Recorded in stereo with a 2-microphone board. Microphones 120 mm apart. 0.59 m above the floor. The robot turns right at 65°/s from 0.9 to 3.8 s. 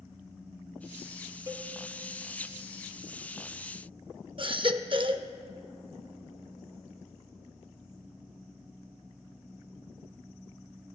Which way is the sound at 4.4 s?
45° right (ahead or behind).